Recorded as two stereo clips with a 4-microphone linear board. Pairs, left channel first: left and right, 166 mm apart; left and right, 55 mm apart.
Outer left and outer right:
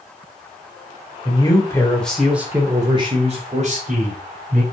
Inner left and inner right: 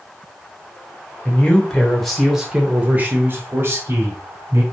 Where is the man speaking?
30° left (ahead or behind), 1.3 m; by 4.6 s 60° right (ahead or behind), 2 m.